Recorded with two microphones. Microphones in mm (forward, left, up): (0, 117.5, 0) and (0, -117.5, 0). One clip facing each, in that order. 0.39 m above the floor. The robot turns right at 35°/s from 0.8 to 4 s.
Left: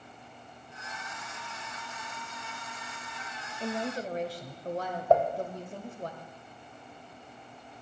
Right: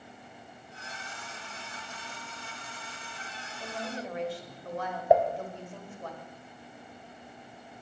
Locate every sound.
3.6 s a woman speaking: 30° left (ahead or behind), 1.4 m; by 6.1 s 40° left (ahead or behind), 1.4 m
5.1 s dishes clattering: 15° right (ahead or behind), 1.2 m